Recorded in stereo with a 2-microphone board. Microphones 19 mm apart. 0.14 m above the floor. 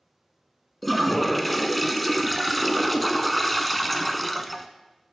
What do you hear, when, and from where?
0.8 s a toilet flushing: 5° left (ahead or behind), 0.6 m